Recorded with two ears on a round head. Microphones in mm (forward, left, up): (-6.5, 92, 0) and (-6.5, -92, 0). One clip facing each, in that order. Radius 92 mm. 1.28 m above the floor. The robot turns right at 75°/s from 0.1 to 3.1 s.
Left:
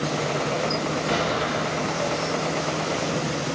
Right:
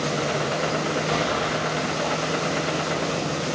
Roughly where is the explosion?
Behind left.